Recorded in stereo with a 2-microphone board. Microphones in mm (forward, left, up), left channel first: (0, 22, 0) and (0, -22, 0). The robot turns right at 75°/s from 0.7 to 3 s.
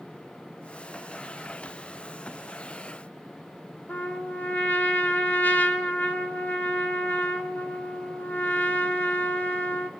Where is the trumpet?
40° left (ahead or behind), 1.0 m.